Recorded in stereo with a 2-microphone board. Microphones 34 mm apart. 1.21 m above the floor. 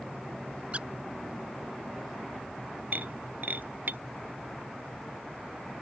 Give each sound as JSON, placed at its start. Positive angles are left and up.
{"t": 0.7, "sound": "a squeak", "side_deg": -40}
{"t": 2.9, "sound": "breaking glass", "side_deg": -60}